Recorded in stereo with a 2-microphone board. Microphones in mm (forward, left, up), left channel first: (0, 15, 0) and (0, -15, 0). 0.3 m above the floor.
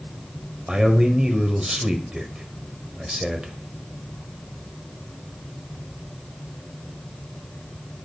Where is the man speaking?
25° right (ahead or behind), 1.3 m.